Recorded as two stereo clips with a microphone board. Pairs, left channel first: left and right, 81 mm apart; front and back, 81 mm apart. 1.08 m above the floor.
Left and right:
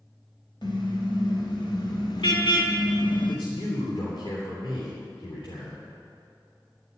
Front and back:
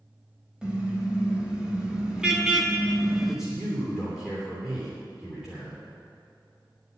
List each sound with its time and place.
0.6 s a car horn: 105° left, 3.5 m; by 3.4 s 95° left, 0.8 m
3.3 s a man speaking: 95° left, 3 m